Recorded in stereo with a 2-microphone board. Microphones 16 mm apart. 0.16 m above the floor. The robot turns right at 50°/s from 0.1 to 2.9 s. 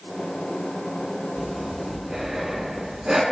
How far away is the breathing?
About 0.6 m.